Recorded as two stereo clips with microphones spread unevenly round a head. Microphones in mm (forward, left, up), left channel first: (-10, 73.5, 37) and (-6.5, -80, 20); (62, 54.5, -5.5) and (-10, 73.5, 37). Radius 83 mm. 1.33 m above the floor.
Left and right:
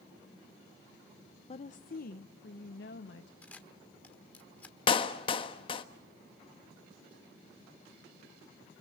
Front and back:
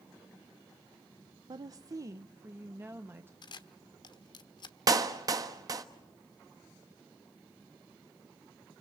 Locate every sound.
1.5 s a woman speaking: 145° left, 0.6 m; by 3.3 s 105° left, 1.6 m
3.4 s a camera shutter: 20° left, 1.1 m
4.9 s a clap: 145° left, 1.3 m